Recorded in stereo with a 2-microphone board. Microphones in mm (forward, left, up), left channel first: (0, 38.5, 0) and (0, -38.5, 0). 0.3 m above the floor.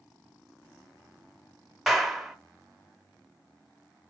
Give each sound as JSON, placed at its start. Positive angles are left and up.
{"t": 1.9, "sound": "a clap", "side_deg": 0, "distance_m": 0.9}